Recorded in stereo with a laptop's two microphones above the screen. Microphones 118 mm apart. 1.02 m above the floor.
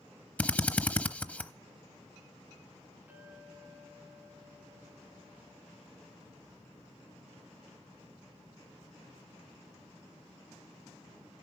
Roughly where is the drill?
Centre.